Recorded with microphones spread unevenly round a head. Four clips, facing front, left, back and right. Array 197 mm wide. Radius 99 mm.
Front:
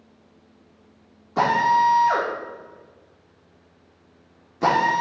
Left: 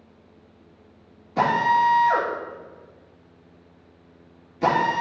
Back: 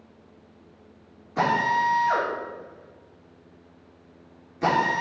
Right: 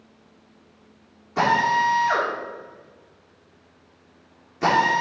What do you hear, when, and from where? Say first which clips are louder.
1.4 s a drill: left 1 dB, front 5 dB; 5° left, 3 m